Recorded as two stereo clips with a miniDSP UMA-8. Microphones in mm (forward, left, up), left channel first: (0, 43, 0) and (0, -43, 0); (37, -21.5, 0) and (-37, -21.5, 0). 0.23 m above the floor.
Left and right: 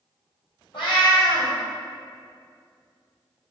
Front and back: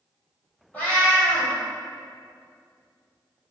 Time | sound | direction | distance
0.7 | a cat meowing | 70° left | 1.4 m